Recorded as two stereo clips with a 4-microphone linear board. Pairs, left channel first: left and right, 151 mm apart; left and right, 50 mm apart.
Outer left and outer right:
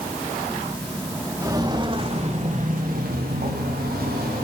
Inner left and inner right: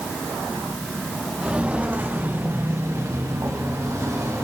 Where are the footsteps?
20° right (ahead or behind), 2 m; by 4.5 s 80° right, 3 m.